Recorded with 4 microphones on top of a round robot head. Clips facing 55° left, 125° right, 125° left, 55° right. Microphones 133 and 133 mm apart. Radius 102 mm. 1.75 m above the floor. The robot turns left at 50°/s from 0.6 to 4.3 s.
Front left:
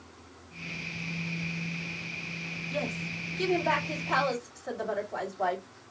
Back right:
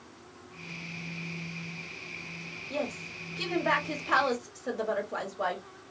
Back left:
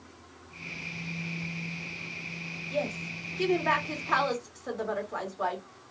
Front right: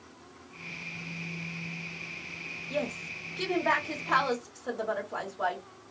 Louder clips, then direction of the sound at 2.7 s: Back right 1 dB, back left 1 dB; 55° right.